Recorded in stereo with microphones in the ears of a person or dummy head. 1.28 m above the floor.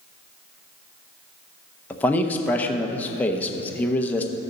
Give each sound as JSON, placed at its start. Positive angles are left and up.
{"t": 1.9, "sound": "a man speaking", "side_deg": 5, "distance_m": 0.9}